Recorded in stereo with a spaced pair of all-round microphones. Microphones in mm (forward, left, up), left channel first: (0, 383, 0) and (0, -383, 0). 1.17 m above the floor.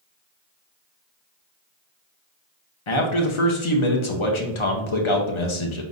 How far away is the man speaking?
About 0.7 m.